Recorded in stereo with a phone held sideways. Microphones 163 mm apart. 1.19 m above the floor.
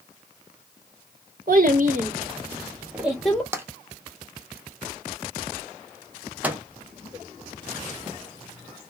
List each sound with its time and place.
1.5 s a child speaking: 60° right (ahead or behind), 1.0 m; by 3.4 s 5° left (ahead or behind), 0.9 m
3.5 s tapping: 15° right (ahead or behind), 0.6 m
6.4 s a microwave: 10° right (ahead or behind), 0.5 m